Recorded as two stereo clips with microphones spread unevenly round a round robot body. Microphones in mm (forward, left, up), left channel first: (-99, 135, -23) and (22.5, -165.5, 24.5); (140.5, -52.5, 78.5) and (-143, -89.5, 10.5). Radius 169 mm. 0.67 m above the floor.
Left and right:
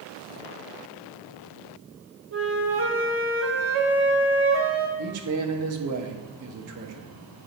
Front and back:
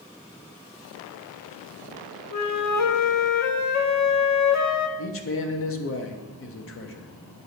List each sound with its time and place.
2.3 s a flute: 15° right, 0.7 m
5.0 s a man speaking: 35° right, 0.8 m